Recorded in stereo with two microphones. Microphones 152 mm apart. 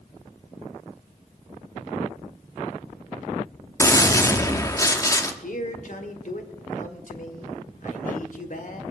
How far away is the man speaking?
About 1.6 m.